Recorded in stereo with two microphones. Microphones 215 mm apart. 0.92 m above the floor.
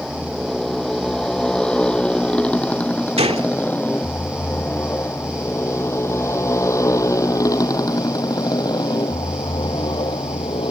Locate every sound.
0.0 s a motorcycle: centre (ahead or behind); by 10.7 s 25° left (ahead or behind)
3.2 s a gunshot: 30° right (ahead or behind)